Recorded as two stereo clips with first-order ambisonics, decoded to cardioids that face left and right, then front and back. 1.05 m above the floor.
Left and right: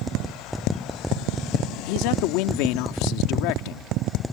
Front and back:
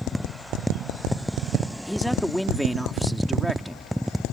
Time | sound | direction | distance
1.9 | a man speaking | 90° left | ?